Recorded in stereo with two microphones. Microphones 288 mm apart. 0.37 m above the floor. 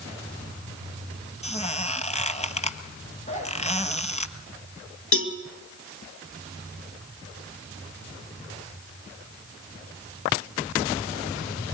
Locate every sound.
1.4 s a squeak: 25° left (ahead or behind), 1.3 m
3.3 s a zipper: 25° left (ahead or behind), 8.5 m
5.1 s a cowbell: 45° left (ahead or behind), 2.5 m